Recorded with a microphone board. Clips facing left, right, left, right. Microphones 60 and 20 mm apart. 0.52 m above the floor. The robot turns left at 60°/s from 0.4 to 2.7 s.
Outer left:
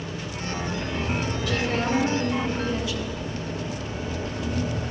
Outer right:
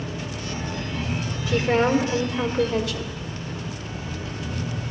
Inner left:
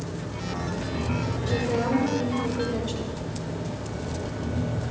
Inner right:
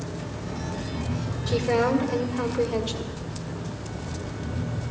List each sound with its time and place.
0.0 s an engine running: straight behind, 1.1 m; by 4.9 s 45° left, 1.1 m
1.5 s a woman speaking: 25° right, 1.7 m; by 3.1 s 100° right, 1.7 m